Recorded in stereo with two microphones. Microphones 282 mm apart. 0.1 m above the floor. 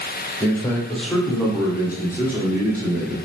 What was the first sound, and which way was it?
A man speaking, 5° left (ahead or behind).